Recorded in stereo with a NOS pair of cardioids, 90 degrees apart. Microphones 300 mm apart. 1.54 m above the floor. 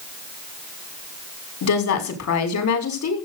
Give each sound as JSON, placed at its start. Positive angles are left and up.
{"t": 1.6, "sound": "a woman speaking", "azimuth_deg": 70, "distance_m": 6.0}